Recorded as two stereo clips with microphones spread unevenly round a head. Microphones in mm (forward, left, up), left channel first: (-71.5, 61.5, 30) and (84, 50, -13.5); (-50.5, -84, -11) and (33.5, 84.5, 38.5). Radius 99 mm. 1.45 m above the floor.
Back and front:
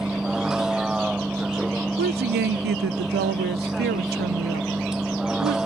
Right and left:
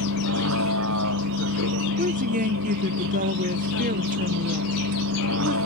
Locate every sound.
0.0 s a vehicle: 85° left
2.0 s a woman speaking: 25° left